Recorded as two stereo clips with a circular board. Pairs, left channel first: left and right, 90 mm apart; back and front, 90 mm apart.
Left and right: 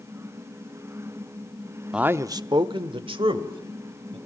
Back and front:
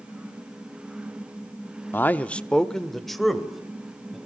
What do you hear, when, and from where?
1.9 s a man speaking: 160° right, 0.6 m; by 4.2 s 85° right, 3 m